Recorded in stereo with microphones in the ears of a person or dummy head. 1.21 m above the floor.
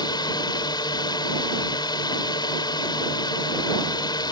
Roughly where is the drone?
Left.